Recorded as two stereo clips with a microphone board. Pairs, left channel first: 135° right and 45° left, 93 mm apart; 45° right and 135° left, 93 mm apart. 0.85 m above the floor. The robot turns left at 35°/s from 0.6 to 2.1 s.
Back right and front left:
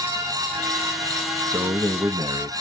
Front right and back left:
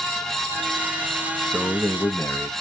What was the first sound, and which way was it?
A man speaking, 35° left.